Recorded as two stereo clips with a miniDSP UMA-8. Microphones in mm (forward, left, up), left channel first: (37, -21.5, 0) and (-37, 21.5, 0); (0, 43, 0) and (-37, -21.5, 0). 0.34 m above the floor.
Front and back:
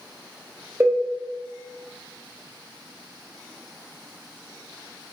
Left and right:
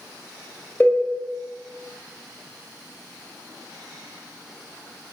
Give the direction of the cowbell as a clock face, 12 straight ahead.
8 o'clock.